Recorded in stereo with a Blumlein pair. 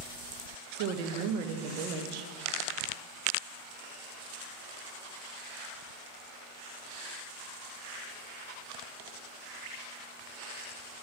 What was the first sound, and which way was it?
A woman speaking, 45° right.